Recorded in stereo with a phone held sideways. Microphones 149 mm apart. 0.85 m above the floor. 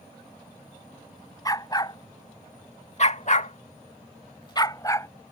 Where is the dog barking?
25° left (ahead or behind); by 5.1 s 20° left (ahead or behind).